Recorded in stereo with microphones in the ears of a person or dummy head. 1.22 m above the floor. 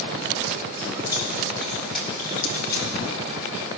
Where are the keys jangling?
30° right (ahead or behind), 1.4 m; by 2.9 s 20° left (ahead or behind), 2 m.